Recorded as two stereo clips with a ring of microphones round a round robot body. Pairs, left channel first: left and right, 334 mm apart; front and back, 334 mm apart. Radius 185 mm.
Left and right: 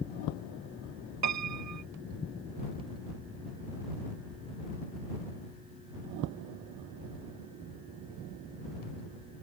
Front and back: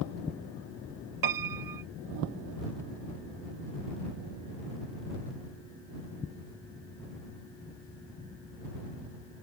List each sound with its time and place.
1.2 s a piano: 140° right